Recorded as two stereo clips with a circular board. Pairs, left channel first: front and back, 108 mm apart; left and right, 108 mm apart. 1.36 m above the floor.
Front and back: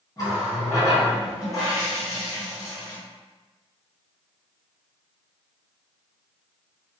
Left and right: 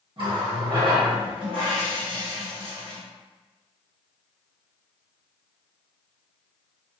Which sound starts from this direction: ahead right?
A running tap, at 0.2 s.